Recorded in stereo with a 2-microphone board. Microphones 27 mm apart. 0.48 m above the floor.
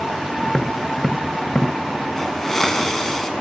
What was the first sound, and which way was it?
Tapping, 15° left (ahead or behind).